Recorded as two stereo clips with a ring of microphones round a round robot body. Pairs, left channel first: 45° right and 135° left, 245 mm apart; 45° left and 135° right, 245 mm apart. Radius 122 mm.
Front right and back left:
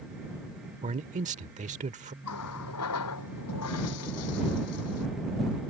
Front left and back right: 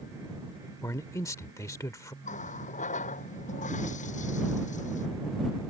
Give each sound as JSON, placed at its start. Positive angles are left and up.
{"t": 0.8, "sound": "a man speaking", "azimuth_deg": 110}
{"t": 2.2, "sound": "a running tap", "azimuth_deg": -15}